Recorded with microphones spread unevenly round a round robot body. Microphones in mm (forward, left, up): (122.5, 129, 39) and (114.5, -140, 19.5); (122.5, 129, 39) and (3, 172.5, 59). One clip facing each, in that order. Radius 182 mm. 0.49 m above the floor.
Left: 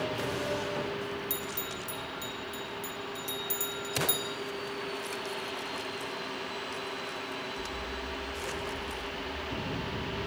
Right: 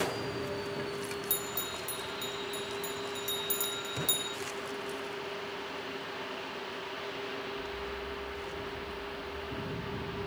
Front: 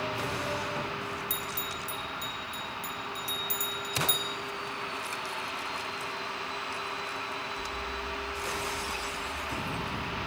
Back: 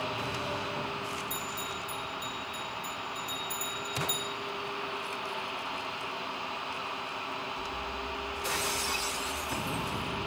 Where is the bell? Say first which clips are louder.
Left 1 dB, even; 25° right, 2.0 m.